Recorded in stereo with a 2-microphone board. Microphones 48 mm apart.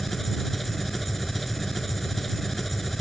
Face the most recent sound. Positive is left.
turn(degrees=5)  # may be behind; listen again after turning